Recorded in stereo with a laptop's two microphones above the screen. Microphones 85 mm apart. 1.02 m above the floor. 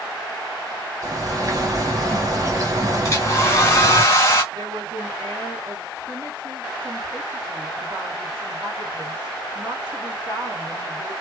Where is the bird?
45° right (ahead or behind), 1.2 m.